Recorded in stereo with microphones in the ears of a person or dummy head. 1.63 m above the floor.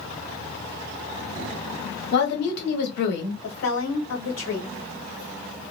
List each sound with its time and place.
2.1 s a woman speaking: 65° left (ahead or behind), 1.2 m
3.4 s a woman speaking: 70° left (ahead or behind), 1.3 m